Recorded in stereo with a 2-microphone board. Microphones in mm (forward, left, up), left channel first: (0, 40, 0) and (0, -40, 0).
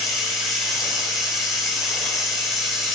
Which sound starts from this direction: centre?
Running water, at 0.0 s.